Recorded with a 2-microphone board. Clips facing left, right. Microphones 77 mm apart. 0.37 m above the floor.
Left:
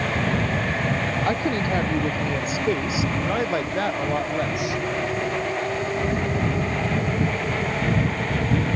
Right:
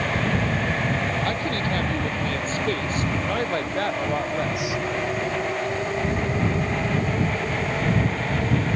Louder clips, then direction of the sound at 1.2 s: Left 2 dB; 20° left (ahead or behind).